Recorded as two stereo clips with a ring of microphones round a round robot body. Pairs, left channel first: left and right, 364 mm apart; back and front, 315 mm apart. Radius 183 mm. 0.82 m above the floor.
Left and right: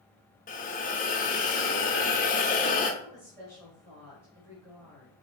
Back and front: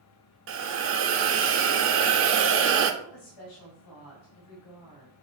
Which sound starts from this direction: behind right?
A woman speaking, at 3.0 s.